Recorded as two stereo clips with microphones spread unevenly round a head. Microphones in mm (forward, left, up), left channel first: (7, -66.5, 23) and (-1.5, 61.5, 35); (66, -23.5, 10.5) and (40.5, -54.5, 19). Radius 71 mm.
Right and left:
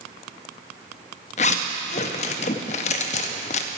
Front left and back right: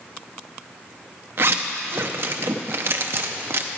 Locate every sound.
1.4 s a zipper: 130° right, 0.6 m